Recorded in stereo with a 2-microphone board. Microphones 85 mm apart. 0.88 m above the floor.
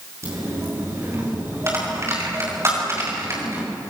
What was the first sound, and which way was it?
A dropped coin, 35° right (ahead or behind).